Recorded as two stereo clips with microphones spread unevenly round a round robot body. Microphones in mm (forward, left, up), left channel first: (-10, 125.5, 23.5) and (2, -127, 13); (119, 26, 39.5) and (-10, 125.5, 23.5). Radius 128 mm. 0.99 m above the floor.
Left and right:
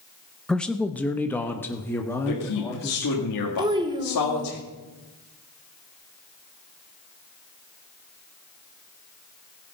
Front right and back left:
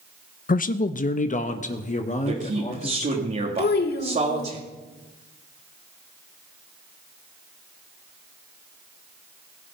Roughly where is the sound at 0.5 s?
Ahead.